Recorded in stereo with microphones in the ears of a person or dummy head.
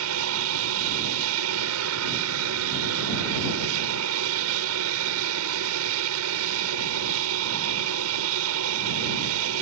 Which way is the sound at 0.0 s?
65° right (ahead or behind).